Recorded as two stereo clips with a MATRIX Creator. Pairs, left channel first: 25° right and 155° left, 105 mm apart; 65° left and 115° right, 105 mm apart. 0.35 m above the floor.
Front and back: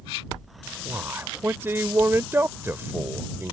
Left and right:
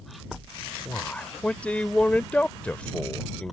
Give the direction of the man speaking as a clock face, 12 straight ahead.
8 o'clock.